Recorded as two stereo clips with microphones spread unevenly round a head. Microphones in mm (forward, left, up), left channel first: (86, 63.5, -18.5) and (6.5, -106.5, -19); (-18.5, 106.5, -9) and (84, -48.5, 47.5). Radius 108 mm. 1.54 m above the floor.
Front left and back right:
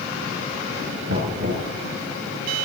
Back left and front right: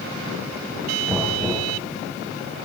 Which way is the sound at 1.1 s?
145° right.